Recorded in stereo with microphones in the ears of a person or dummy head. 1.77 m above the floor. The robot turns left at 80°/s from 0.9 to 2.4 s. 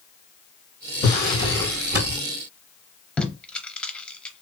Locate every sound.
1.0 s a drawer: 55° left, 3 m; by 2.2 s 40° right, 3 m
3.2 s tape being pulled: centre (ahead or behind), 0.8 m